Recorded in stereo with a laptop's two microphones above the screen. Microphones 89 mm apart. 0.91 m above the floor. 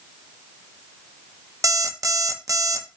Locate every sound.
1.6 s an alarm clock: 40° right (ahead or behind), 0.6 m